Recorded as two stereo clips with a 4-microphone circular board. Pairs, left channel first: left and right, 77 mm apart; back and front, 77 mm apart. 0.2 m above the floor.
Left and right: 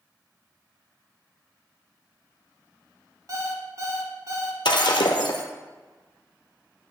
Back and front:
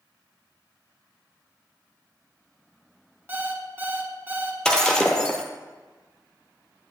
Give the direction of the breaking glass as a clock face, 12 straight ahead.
9 o'clock.